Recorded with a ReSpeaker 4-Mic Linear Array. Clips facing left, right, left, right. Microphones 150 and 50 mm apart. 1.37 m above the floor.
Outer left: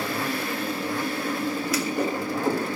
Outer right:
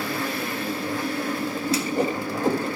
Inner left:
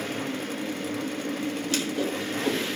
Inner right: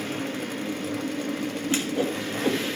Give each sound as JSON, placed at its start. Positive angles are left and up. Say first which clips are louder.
{"t": 1.7, "sound": "a whoosh", "louder": "outer right 5 dB, inner right 4 dB", "side_deg": -25, "distance_m": 1.6}